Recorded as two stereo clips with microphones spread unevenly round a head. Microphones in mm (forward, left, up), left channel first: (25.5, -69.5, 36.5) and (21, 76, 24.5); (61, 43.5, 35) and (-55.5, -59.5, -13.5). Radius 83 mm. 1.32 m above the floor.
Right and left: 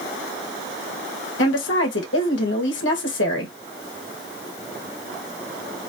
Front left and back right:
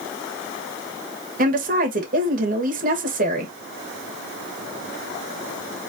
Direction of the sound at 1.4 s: 100° right.